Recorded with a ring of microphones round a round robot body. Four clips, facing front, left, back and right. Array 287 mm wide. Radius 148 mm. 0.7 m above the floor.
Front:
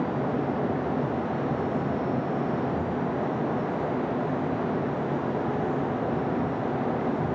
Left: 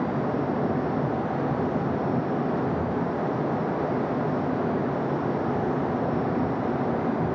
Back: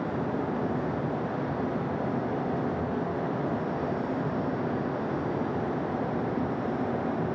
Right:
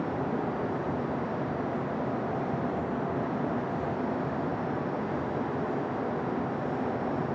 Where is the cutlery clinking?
I don't hear cutlery clinking.